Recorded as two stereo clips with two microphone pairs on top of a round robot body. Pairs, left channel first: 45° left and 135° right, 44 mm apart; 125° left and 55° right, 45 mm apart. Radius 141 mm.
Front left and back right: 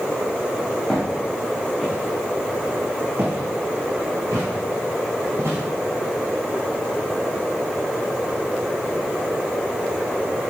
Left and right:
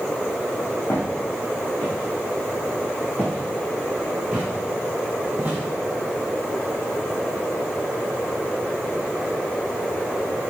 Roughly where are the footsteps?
Behind left.